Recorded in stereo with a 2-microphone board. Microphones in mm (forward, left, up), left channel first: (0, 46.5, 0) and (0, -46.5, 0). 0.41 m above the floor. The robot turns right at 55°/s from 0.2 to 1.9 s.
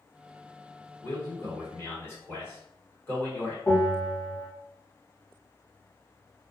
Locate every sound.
1.0 s a man speaking: 80° left, 1.7 m; by 3.6 s 130° left, 1.7 m
3.7 s a bell: 35° left (ahead or behind), 1.7 m